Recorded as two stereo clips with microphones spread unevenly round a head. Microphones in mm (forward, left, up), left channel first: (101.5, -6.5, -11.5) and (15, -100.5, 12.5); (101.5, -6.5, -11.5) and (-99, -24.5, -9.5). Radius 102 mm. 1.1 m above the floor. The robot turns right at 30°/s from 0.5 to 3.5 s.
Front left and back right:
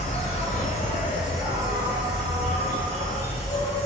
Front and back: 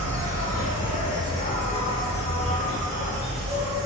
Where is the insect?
25° left, 1.7 m; by 3.9 s 115° left, 1.7 m.